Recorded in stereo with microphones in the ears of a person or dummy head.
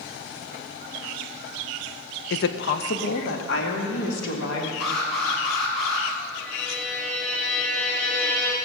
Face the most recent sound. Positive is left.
turn(degrees=10)  # may be behind; listen again after turning